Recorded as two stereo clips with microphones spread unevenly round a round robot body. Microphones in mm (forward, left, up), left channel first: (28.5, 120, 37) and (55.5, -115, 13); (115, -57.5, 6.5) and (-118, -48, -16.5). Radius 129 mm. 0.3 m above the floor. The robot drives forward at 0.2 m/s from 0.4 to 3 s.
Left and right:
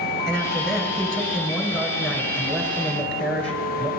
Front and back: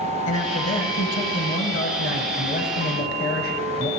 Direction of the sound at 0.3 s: 5° left.